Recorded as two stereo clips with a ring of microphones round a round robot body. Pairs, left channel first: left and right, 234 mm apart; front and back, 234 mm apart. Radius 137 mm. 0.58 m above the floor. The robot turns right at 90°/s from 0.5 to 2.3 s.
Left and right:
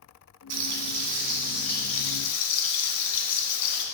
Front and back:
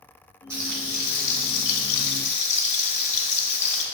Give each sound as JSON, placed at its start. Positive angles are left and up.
{"t": 0.5, "sound": "frying", "azimuth_deg": -100, "distance_m": 1.8}